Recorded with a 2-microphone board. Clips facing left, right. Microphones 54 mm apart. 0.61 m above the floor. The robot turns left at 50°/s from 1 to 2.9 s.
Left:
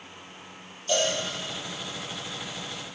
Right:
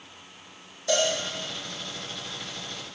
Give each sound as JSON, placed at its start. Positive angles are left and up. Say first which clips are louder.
{"t": 0.9, "sound": "a cowbell", "louder": "right 1 dB", "side_deg": -80, "distance_m": 5.0}